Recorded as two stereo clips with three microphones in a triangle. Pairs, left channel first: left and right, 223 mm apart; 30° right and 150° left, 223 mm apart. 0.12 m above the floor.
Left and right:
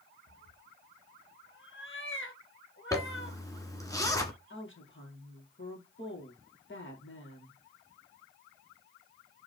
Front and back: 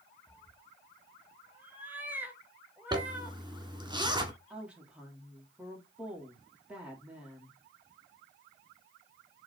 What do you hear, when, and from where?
0.3 s a cat meowing: 70° left, 1.6 m
2.9 s a zipper: 135° left, 1.7 m
4.5 s a woman speaking: 65° left, 3 m